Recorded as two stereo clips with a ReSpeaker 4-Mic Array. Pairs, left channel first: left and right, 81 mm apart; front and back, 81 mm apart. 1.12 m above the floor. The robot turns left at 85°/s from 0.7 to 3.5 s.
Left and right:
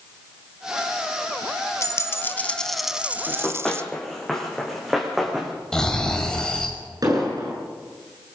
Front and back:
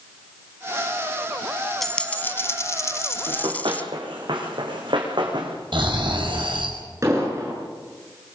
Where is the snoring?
175° left, 5.5 m.